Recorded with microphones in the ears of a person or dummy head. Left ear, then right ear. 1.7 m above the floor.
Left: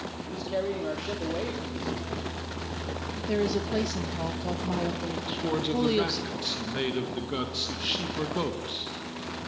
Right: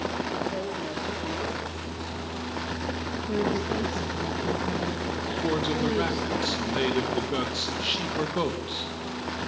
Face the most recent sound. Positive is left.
turn(degrees=-10)  # may be behind; listen again after turning